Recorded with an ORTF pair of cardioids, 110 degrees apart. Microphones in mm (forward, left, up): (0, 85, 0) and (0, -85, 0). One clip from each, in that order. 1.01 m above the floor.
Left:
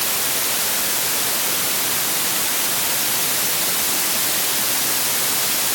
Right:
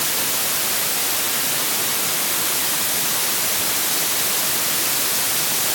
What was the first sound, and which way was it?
Only background noise.